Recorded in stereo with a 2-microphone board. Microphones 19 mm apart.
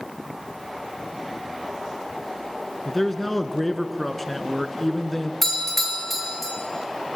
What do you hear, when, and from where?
2.9 s a man speaking: 15° left (ahead or behind), 1.5 m
5.4 s a doorbell: 10° left (ahead or behind), 3 m